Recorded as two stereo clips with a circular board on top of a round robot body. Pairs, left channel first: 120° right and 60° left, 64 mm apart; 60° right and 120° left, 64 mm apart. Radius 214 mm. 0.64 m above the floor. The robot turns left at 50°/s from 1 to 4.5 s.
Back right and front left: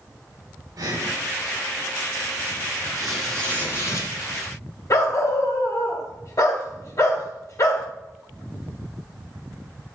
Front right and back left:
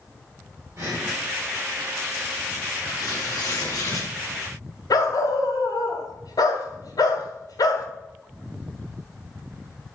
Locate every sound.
0.8 s breathing: 70° left, 5.5 m; by 1.1 s 65° left, 5.5 m
3.0 s tearing paper: 25° right, 3 m; by 4.1 s 80° right, 3 m
4.9 s a dog barking: 80° right, 1.8 m